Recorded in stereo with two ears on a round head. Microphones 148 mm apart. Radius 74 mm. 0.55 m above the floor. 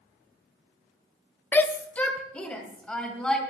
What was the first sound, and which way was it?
A shout, 10° left (ahead or behind).